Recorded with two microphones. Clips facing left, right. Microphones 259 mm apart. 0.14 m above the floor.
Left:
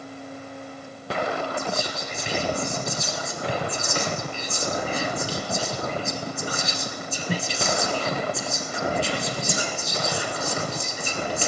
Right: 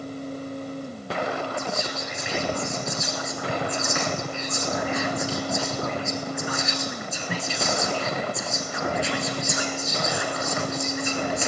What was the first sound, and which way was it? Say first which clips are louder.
Whispering: left 1 dB; 35° left (ahead or behind).